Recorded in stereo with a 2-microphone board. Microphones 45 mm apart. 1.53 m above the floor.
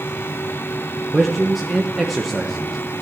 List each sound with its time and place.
1.1 s a man speaking: 5° right (ahead or behind), 1.1 m